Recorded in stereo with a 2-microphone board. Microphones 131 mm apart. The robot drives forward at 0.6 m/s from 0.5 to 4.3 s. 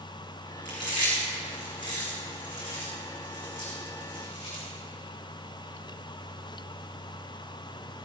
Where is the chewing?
75° left (ahead or behind), 5 m.